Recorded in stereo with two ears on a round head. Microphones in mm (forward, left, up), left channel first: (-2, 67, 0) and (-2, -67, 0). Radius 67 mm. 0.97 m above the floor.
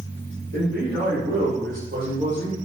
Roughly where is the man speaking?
Right.